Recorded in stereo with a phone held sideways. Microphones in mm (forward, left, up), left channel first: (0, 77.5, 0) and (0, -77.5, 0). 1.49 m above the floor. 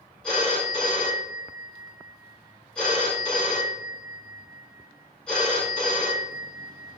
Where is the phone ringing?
5° left (ahead or behind), 2 m.